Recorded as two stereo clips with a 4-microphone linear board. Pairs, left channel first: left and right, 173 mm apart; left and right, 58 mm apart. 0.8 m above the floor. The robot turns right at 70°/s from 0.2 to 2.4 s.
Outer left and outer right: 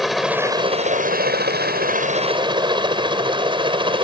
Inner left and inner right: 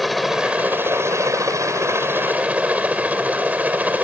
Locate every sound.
0.0 s a helicopter: centre (ahead or behind); by 4.0 s 30° right (ahead or behind)